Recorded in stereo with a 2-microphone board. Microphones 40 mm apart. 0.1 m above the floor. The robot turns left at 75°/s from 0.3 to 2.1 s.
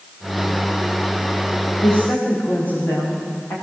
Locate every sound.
1.8 s a woman speaking: 80° left, 10 m; by 3.5 s 60° left (ahead or behind), 10 m